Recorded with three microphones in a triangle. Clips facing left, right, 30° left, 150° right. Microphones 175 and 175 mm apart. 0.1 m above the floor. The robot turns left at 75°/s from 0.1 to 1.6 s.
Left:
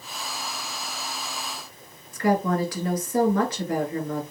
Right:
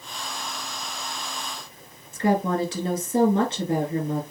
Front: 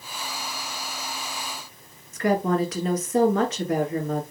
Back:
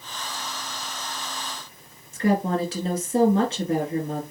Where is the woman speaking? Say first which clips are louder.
Even, even; 125° right, 1.8 m.